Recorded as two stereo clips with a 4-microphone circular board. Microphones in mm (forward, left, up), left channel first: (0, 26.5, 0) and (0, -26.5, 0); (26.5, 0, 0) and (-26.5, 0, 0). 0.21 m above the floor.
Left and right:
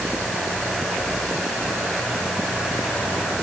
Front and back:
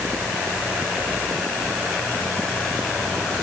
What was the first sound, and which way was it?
Only background noise.